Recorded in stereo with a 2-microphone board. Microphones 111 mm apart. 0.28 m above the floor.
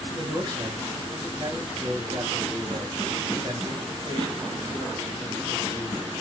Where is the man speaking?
40° right (ahead or behind), 4 m.